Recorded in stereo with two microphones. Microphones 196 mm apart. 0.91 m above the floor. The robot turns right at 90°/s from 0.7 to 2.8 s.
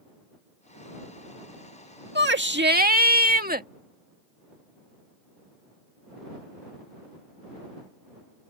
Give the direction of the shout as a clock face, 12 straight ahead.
4 o'clock.